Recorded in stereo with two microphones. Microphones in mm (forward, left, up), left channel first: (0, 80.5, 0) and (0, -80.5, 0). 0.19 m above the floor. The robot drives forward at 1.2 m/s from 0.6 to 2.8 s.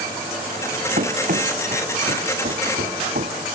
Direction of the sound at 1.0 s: 55° right (ahead or behind).